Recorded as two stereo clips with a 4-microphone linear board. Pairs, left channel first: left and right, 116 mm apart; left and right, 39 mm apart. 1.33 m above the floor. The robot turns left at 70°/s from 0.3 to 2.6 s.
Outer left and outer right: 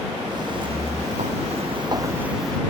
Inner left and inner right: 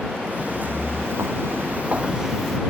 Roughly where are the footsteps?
Right.